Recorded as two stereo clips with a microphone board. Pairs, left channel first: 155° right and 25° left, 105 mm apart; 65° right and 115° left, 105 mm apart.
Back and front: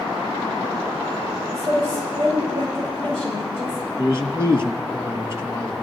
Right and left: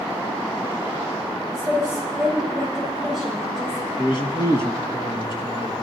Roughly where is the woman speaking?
Ahead left.